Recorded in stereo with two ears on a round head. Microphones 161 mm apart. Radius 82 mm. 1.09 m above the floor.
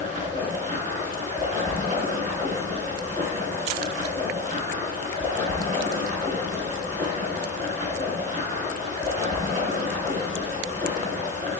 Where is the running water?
45° right (ahead or behind), 3.5 m.